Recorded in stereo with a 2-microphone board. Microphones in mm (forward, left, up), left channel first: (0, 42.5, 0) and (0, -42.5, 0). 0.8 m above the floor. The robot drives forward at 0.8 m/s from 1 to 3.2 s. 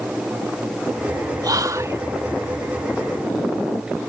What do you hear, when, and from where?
1.4 s whispering: 50° right (ahead or behind); by 2.0 s 35° right (ahead or behind)